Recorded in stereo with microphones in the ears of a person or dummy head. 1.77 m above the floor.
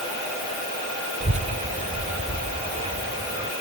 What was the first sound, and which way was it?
A child speaking, 35° right (ahead or behind).